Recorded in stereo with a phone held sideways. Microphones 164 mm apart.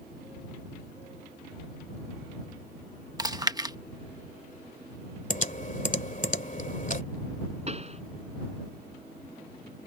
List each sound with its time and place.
3.2 s chewing: 25° right (ahead or behind)
5.3 s typing on a keyboard: 55° left (ahead or behind)
7.7 s a pop: 40° right (ahead or behind)